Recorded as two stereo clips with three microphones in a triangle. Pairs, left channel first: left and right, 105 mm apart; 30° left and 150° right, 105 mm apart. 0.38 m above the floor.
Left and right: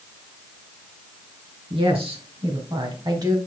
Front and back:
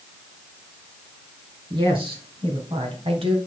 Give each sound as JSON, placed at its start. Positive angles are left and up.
{"t": 1.7, "sound": "a woman speaking", "azimuth_deg": -115, "distance_m": 4.0}